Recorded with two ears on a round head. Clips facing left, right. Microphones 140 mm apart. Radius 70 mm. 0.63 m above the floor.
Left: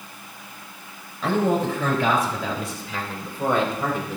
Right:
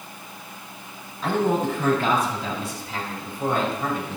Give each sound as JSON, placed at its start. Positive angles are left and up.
{"t": 1.2, "sound": "a man speaking", "side_deg": 75, "distance_m": 4.0}